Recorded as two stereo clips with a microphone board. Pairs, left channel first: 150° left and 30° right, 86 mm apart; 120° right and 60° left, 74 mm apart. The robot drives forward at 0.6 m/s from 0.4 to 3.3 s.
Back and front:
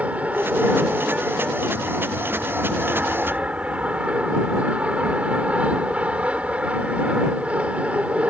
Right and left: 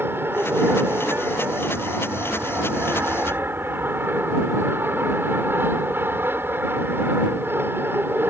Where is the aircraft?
30° left; by 8.3 s 35° left.